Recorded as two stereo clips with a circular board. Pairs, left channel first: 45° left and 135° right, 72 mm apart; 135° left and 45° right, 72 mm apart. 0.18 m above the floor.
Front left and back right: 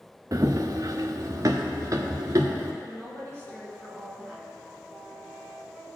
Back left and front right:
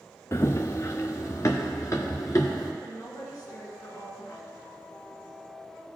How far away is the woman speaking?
About 2.5 m.